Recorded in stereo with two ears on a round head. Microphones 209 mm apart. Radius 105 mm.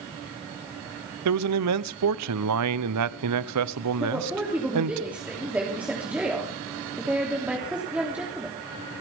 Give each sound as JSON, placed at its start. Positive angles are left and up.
{"t": 1.2, "sound": "a man speaking", "side_deg": -75, "distance_m": 0.8}
{"t": 4.0, "sound": "a woman speaking", "side_deg": -5, "distance_m": 3.0}